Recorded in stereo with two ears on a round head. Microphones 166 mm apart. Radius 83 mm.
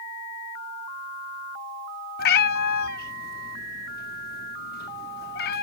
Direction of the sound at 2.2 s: 55° left (ahead or behind).